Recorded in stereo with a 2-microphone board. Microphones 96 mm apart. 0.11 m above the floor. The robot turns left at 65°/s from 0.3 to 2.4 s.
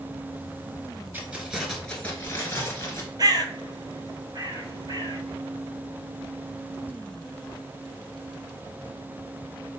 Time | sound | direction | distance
1.1 | keys jangling | 145° right | 1.0 m
3.2 | a bird | 45° right (ahead or behind) | 0.5 m